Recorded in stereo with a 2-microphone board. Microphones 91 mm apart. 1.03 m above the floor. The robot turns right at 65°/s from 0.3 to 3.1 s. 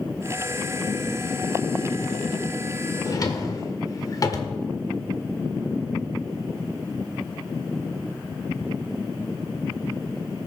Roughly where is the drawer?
Left.